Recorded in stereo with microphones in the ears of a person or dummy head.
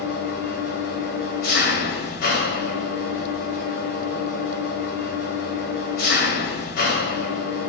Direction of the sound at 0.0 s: 55° left (ahead or behind).